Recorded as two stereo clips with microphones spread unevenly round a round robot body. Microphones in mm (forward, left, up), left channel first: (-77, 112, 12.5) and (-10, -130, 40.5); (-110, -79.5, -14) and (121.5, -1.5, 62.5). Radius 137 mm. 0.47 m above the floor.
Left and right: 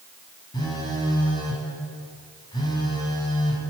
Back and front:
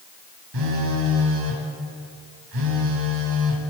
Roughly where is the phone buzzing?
Ahead left.